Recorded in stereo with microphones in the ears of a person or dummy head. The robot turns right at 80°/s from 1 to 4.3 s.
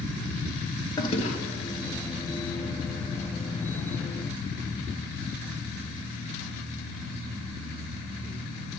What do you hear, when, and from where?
1.0 s a toilet flushing: 25° left, 1.2 m; by 1.4 s 55° left, 1.2 m